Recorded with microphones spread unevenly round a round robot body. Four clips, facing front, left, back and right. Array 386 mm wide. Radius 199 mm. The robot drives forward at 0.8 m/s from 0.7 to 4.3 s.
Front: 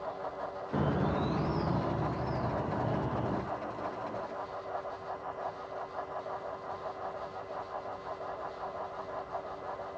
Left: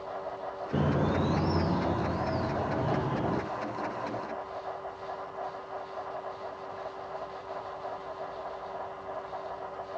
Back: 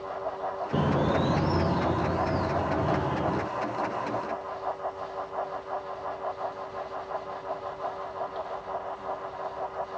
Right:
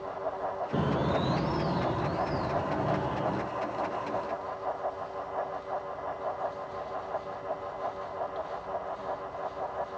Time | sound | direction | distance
0.7 | a bird | 165° left | 1.1 m